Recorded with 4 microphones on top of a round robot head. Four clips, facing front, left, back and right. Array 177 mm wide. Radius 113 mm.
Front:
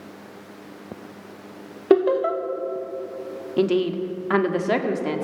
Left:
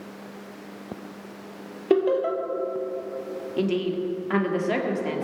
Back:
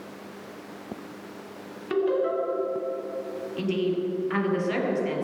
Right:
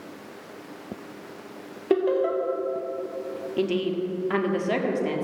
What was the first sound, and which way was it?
Laughter, 5° left.